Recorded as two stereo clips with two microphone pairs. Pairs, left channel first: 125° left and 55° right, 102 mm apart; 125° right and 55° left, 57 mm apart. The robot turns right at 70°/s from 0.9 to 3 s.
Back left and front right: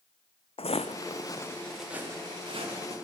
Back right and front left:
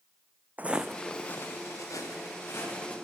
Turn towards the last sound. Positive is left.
turn(degrees=-55)